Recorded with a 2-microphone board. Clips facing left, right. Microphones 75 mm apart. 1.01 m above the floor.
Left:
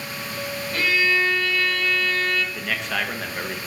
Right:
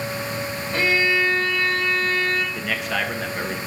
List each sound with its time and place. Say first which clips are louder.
0.7 s a violin: right 1 dB; 25° right (ahead or behind), 1.8 m
2.5 s a man speaking: right 2 dB; 5° right (ahead or behind), 1.2 m